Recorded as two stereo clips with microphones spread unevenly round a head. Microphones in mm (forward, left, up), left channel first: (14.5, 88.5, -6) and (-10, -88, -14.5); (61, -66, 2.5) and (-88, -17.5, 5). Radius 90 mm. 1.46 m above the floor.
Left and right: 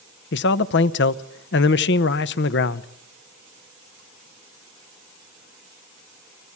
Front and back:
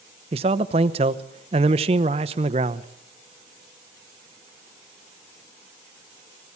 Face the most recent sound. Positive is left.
turn(degrees=105)